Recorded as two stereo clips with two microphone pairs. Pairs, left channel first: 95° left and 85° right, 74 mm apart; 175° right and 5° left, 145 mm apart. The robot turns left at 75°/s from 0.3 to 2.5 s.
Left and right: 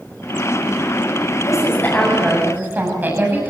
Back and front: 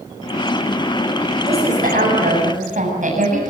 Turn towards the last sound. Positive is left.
turn(degrees=-20)